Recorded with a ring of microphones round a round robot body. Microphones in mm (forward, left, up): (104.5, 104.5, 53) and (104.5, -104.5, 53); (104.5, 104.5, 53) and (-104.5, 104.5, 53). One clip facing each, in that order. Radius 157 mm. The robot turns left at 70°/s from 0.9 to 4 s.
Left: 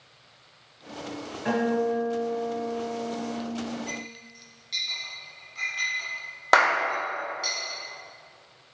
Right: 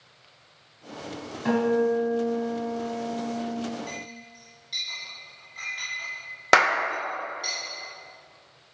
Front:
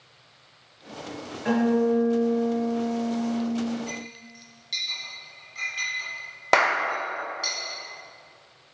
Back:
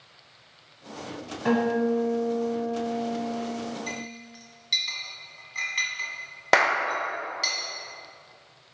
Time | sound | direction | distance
1.4 | a guitar | 135° right | 1.5 m
3.9 | a clink | 170° left | 1.8 m
6.5 | a clap | 105° right | 0.7 m